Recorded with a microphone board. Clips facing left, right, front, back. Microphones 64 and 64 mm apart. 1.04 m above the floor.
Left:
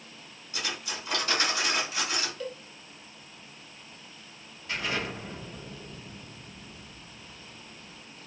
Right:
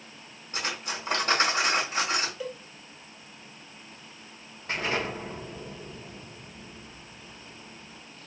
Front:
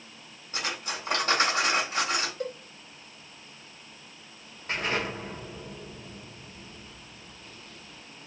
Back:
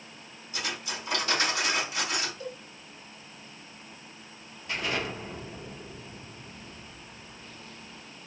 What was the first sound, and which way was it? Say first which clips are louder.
Cutlery clinking: right 3 dB, front 2 dB; 45° right.